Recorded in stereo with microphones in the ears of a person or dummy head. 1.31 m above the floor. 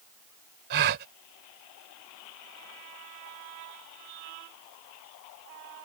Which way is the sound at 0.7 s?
60° right (ahead or behind).